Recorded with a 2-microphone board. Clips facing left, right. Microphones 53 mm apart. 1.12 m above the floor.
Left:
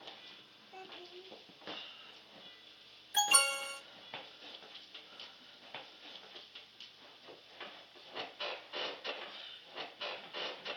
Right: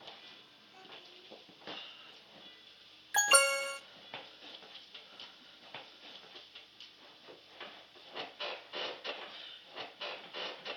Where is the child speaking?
50° left (ahead or behind), 2 m.